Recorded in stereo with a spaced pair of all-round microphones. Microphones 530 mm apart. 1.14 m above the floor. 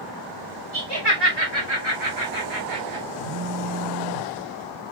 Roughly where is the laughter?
Right.